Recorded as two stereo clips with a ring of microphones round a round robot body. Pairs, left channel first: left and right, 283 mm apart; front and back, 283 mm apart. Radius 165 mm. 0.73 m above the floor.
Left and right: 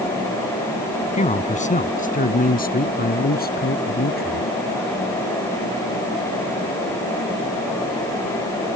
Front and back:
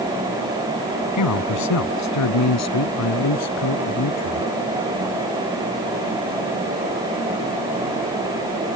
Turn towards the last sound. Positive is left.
turn(degrees=35)